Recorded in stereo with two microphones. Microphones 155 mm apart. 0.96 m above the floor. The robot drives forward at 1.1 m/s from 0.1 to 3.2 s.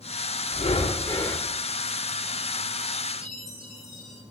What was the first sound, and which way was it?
Breathing, 50° left (ahead or behind).